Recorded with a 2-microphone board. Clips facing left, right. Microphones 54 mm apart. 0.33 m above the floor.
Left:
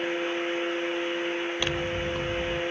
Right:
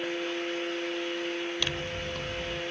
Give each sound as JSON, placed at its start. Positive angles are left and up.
{"t": 1.6, "sound": "scissors", "side_deg": 20, "distance_m": 0.9}